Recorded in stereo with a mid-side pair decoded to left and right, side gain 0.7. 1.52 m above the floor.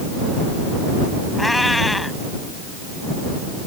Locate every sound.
1.4 s a cat meowing: 10° left